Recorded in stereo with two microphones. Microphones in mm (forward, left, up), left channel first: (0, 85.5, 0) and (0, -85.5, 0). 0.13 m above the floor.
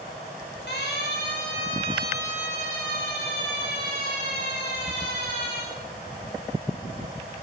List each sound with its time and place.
0.7 s a siren: 80° left, 8.5 m; by 5.6 s 85° left, 12 m